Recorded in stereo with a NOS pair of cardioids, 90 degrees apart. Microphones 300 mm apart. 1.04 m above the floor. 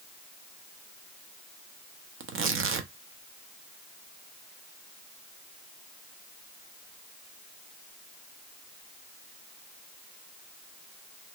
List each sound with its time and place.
2.2 s tearing paper: 50° right, 0.7 m